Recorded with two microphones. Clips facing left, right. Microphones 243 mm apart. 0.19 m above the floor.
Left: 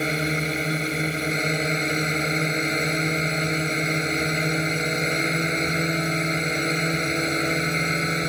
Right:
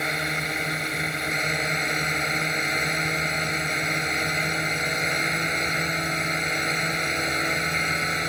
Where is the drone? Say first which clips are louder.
Left 6 dB; 30° left (ahead or behind).